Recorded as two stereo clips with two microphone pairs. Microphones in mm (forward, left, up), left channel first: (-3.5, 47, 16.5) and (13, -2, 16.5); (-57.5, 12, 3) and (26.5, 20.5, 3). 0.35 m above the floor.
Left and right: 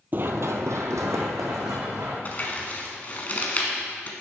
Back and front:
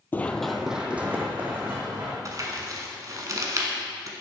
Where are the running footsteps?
115° right, 0.5 m; by 2.1 s 55° right, 2.0 m.